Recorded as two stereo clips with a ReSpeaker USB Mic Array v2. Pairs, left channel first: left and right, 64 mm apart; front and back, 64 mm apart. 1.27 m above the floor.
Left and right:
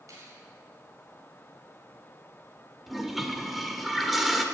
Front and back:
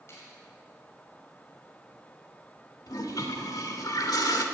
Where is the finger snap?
50° right, 5.5 m.